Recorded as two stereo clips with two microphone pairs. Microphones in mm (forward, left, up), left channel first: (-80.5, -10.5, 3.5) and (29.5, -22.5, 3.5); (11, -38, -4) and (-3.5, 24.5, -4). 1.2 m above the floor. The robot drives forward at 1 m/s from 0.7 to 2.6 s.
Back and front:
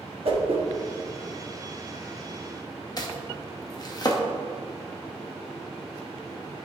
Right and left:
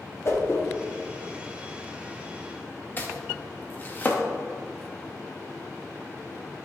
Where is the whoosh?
35° right, 1.4 m.